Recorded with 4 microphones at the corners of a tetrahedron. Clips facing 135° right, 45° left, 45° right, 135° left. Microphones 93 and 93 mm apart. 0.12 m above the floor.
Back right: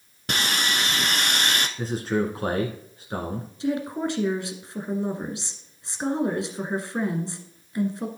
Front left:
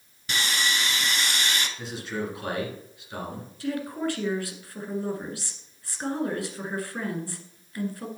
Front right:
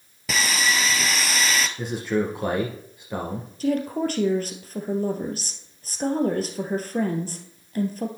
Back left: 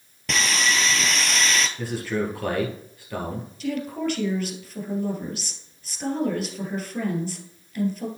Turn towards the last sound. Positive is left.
turn(degrees=-75)